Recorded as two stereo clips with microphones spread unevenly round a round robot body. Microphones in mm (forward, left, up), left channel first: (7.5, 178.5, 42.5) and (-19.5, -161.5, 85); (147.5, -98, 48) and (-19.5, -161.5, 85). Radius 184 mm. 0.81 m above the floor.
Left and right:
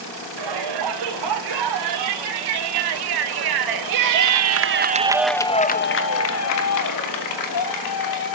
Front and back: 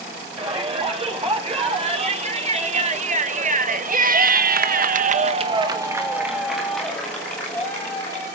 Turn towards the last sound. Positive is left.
turn(degrees=95)